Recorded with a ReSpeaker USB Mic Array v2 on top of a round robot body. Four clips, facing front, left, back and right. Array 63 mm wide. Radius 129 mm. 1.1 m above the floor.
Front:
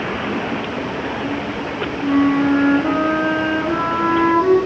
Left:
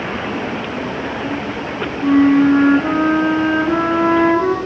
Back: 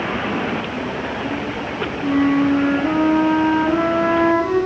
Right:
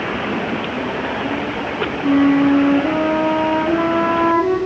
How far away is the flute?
About 3.5 m.